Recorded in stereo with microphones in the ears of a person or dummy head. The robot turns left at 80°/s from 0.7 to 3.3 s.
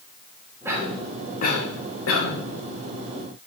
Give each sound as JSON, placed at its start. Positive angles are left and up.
{"t": 0.7, "sound": "a cough", "side_deg": 0, "distance_m": 2.0}